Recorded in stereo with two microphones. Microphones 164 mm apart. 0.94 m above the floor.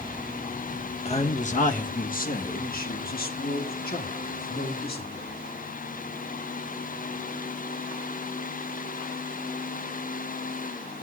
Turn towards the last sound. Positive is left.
turn(degrees=70)  # may be behind; listen again after turning